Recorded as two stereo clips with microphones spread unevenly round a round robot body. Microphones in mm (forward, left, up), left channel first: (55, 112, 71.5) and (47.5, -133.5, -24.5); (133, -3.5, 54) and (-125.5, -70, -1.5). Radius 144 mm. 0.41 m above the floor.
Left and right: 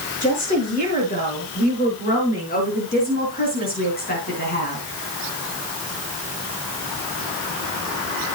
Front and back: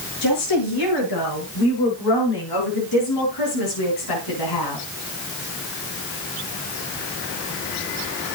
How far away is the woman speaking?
About 7.5 m.